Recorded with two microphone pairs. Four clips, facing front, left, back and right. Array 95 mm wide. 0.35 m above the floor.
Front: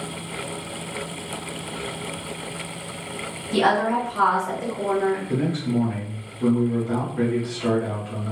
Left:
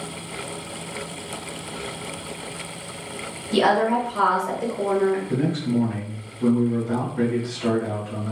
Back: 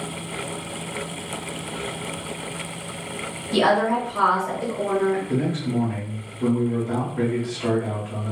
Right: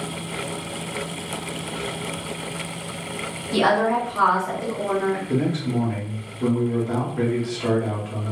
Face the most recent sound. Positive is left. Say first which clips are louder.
# even, even
turn(degrees=-105)